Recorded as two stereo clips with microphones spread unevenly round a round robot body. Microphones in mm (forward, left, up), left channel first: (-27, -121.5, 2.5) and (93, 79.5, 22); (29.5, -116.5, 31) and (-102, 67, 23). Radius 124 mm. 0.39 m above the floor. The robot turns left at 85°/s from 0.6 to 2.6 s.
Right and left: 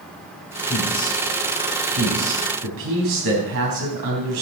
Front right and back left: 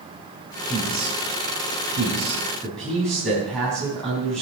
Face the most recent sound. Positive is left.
turn(degrees=35)